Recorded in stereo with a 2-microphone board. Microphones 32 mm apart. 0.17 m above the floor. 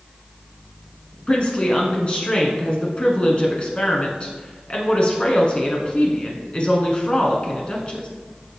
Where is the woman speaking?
30° left (ahead or behind), 1.6 m.